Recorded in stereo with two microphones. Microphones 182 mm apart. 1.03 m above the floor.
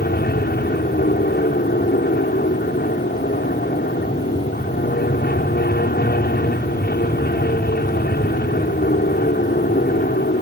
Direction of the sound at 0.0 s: 60° left (ahead or behind).